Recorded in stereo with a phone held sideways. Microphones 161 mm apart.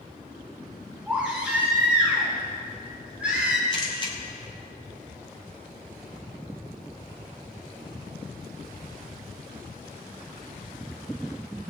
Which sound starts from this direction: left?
A camera shutter, at 3.7 s.